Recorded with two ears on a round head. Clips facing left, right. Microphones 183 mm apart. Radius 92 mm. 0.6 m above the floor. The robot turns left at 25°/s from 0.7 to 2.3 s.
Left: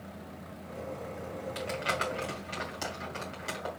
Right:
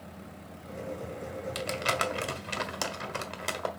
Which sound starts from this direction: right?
Crumpling, at 1.6 s.